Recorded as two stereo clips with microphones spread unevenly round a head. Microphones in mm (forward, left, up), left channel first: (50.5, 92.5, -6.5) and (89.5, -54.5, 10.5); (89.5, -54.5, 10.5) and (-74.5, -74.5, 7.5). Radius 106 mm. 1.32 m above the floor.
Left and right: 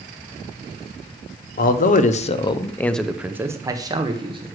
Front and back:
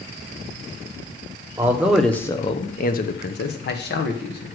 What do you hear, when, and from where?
1.6 s a man speaking: 110° left, 0.7 m; by 4.5 s 15° right, 1.2 m